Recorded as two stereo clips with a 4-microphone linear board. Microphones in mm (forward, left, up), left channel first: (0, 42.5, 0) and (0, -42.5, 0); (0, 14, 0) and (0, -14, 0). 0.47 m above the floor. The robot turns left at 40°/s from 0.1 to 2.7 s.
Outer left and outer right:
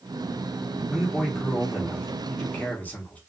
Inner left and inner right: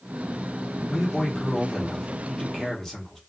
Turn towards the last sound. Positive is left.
turn(degrees=20)  # may be behind; listen again after turning